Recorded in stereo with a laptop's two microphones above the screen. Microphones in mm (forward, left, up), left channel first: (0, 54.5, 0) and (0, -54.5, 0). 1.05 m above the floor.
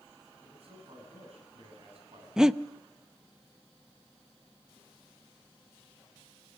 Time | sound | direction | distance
0.4 | a man speaking | 65° right (ahead or behind) | 7.5 m
2.4 | breathing | 5° right (ahead or behind) | 0.6 m